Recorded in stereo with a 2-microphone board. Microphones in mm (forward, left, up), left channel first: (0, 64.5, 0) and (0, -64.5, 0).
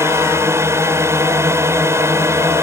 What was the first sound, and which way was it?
A drone, 20° right (ahead or behind).